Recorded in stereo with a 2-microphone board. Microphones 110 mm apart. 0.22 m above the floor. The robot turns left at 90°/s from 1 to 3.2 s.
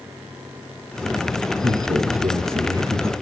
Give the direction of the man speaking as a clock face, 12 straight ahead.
1 o'clock.